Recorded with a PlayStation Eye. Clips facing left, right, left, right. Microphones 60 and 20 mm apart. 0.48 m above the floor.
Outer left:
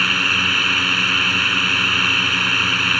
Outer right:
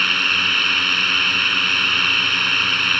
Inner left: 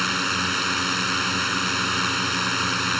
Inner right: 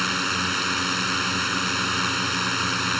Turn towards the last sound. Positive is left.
turn(degrees=5)  # may be behind; listen again after turning